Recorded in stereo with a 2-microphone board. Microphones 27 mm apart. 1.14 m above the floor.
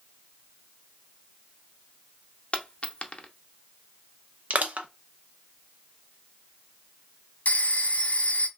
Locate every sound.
2.5 s a dropped coin: 40° left (ahead or behind), 0.6 m
4.5 s crushing: 65° right (ahead or behind), 0.6 m
7.5 s a phone ringing: 65° left (ahead or behind), 0.9 m